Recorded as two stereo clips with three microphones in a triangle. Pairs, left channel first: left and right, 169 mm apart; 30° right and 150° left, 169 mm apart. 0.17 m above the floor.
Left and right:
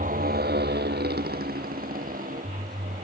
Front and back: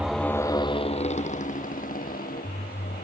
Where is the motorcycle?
125° right; by 3.0 s 50° right.